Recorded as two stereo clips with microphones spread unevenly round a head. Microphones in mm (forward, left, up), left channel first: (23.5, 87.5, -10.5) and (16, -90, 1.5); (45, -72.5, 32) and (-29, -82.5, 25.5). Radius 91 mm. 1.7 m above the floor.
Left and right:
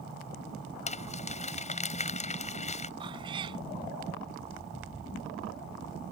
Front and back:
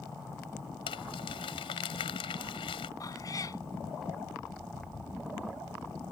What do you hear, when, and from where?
0.9 s crumpling: 35° left
3.0 s a cat meowing: 30° right